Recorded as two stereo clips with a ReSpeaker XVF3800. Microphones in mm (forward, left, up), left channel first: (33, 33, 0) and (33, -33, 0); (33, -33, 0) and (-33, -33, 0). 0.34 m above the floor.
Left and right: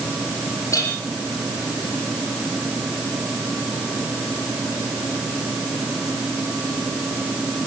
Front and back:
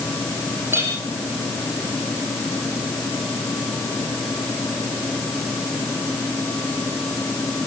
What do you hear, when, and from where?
0.7 s a clink: 130° left, 6 m